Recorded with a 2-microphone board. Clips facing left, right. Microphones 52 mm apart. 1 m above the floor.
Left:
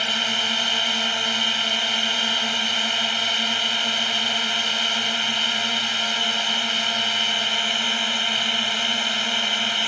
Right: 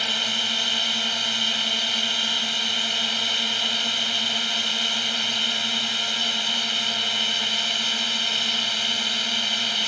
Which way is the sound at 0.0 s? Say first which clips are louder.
Left 2 dB; 20° left (ahead or behind).